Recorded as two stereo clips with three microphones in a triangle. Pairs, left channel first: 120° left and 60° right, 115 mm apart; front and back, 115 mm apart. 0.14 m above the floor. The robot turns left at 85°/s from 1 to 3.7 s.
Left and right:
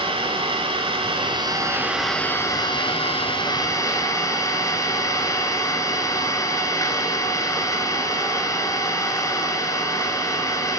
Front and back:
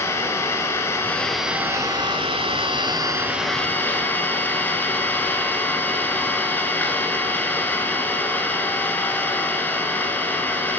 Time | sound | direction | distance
0.0 | an engine running | 60° right | 1.1 m